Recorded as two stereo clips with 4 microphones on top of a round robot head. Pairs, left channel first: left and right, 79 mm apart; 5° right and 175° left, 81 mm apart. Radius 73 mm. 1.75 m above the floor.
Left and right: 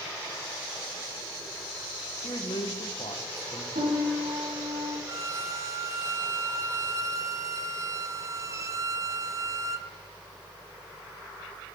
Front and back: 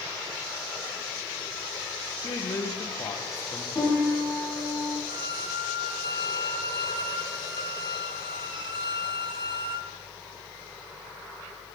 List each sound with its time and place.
2.2 s a man speaking: 45° left, 1.8 m
3.8 s a piano: 75° right, 4.5 m
5.1 s a violin: 140° right, 0.9 m